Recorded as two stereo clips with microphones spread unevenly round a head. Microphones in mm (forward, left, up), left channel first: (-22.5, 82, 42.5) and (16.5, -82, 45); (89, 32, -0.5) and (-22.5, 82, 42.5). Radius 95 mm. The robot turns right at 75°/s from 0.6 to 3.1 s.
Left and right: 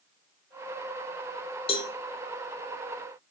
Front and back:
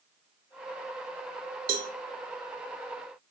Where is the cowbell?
155° left, 0.6 m; by 1.9 s 170° left, 0.6 m.